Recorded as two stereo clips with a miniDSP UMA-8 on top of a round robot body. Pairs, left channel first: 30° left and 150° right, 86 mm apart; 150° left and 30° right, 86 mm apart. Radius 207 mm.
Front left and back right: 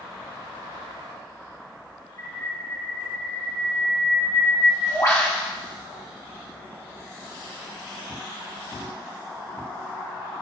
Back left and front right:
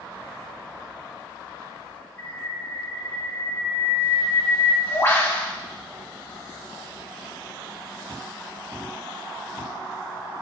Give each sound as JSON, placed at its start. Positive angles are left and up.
{"t": 2.2, "sound": "a bird", "azimuth_deg": 85, "distance_m": 2.0}